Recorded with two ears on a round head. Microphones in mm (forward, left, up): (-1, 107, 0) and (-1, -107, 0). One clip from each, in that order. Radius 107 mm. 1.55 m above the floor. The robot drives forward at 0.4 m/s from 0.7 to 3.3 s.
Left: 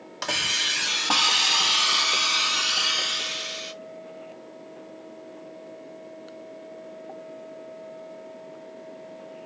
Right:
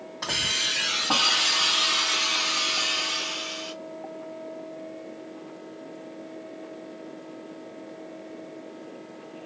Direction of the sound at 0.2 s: 65° left (ahead or behind).